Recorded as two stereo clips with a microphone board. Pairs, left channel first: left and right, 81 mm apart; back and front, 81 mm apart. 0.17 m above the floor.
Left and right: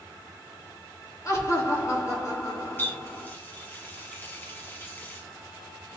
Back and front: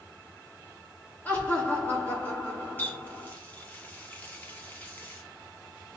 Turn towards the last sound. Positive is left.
turn(degrees=130)